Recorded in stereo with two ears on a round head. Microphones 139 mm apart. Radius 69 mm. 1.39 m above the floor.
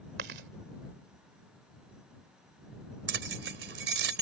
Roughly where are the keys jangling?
Right.